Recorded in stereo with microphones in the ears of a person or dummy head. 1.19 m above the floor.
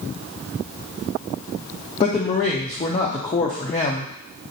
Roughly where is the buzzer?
No buzzer in this recording.